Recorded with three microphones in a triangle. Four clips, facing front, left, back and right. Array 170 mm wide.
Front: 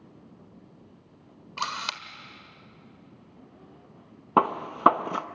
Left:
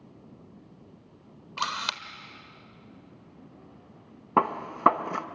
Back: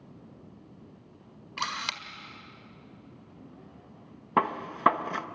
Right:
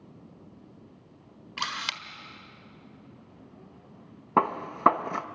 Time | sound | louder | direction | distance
1.6 | a camera shutter | left 3 dB, front 2 dB | 55° left | 1.4 m
4.4 | a gunshot | even, front 4 dB | 5° left | 0.8 m